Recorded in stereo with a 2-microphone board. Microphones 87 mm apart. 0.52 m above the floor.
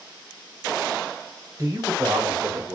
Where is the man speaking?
45° right (ahead or behind), 1.7 m; by 2.8 s 40° right (ahead or behind), 1.2 m.